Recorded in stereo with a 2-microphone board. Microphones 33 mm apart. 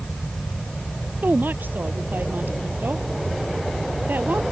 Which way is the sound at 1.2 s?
75° right (ahead or behind).